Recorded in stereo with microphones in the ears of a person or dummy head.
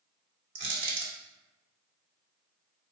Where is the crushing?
60° right (ahead or behind), 1.2 m.